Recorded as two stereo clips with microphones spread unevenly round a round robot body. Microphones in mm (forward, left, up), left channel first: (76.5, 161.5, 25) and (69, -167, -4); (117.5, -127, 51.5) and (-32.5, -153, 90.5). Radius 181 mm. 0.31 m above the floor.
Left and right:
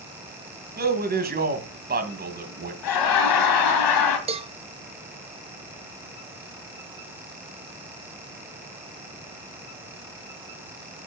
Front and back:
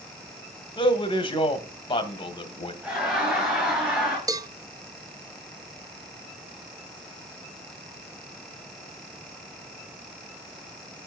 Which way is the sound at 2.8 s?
95° left.